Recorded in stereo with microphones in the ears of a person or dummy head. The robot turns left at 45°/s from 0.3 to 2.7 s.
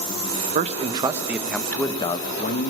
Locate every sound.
0.6 s a man speaking: 130° right, 0.6 m; by 2.7 s 135° left, 0.6 m